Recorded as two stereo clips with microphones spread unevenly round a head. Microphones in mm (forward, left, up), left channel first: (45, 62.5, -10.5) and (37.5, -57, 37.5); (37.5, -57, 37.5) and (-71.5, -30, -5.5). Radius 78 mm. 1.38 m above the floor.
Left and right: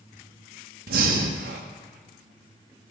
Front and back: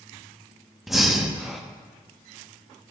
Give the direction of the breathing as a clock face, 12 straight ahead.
4 o'clock.